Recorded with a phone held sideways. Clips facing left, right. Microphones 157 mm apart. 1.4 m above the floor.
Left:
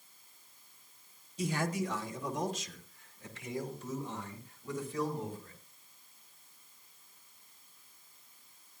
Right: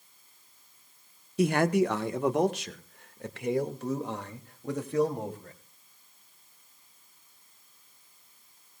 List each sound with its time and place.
1.4 s a man speaking: 70° right (ahead or behind), 1.1 m